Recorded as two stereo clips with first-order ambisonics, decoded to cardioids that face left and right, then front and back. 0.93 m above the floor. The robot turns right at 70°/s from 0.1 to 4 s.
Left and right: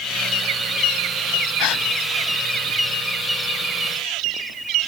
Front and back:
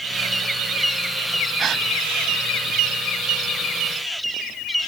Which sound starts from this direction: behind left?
A gasp, at 1.6 s.